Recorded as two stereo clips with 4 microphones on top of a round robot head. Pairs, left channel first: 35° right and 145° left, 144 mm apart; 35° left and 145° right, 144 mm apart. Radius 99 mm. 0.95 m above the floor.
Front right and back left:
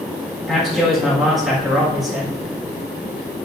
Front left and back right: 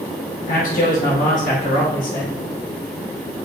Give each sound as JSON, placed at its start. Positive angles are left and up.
{"t": 0.5, "sound": "a man speaking", "azimuth_deg": 55, "distance_m": 1.6}